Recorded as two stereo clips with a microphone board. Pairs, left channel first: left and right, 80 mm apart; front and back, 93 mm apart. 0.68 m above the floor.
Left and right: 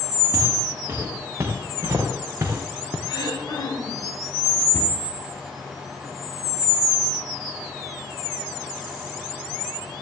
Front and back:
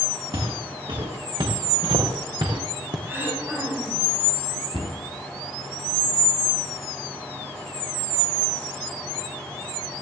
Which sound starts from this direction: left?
Throat clearing, at 3.1 s.